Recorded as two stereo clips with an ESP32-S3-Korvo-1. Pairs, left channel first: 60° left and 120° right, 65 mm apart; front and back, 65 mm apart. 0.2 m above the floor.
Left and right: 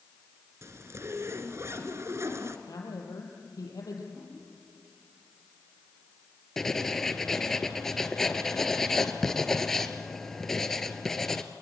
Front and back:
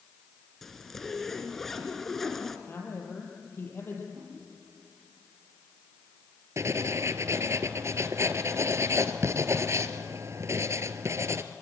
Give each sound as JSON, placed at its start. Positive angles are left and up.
{"t": 0.6, "sound": "a zipper", "azimuth_deg": -85, "distance_m": 1.9}
{"t": 2.7, "sound": "a woman speaking", "azimuth_deg": 50, "distance_m": 6.0}
{"t": 4.1, "sound": "a whoosh", "azimuth_deg": 170, "distance_m": 8.5}
{"t": 6.6, "sound": "writing", "azimuth_deg": 145, "distance_m": 1.3}